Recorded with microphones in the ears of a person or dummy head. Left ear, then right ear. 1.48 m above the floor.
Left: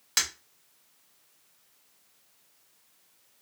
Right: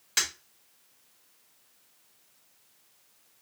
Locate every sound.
0.2 s breaking glass: 20° left (ahead or behind), 1.2 m